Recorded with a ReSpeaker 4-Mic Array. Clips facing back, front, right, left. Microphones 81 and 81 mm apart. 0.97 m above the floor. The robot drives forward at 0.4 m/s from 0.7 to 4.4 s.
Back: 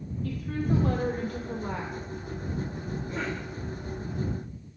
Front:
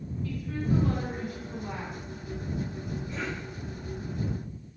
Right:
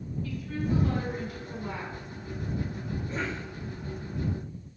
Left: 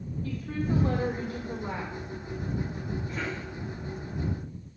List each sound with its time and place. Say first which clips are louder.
0.2 s a woman speaking: back 1 dB, left 1 dB; 145° left, 2 m; by 1.9 s 150° left, 2.5 m
3.1 s a cough: back 4 dB, right 1 dB; 145° right, 4.5 m